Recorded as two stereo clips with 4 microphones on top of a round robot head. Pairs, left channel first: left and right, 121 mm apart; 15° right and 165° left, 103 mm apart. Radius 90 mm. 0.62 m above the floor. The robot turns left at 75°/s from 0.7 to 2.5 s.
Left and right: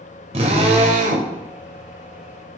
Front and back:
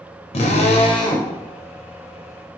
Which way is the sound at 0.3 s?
45° right.